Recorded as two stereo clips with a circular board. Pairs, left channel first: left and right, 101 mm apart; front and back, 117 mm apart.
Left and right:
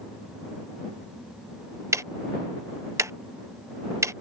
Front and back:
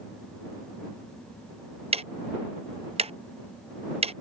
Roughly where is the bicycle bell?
I don't hear a bicycle bell.